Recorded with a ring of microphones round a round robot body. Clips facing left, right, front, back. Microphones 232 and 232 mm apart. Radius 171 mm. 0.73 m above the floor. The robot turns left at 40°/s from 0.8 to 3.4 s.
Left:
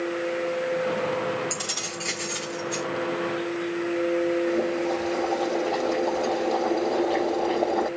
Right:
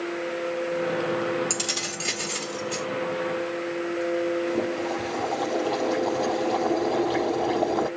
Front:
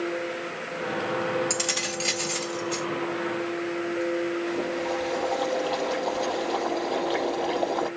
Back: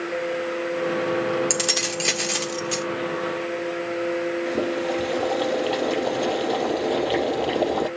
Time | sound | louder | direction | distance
1.5 | keys jangling | right 2 dB, back 4 dB | 125° right | 1.4 m
4.5 | boiling | left 2 dB, back 4 dB | 155° right | 6.5 m